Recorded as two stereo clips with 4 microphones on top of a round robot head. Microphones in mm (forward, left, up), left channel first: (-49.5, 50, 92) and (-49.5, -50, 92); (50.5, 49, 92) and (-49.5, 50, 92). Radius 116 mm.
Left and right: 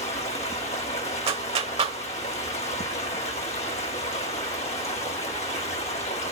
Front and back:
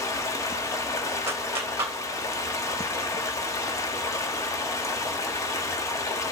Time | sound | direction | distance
0.0 | running water | 55° left | 1.5 m
1.3 | a clap | 110° right | 2 m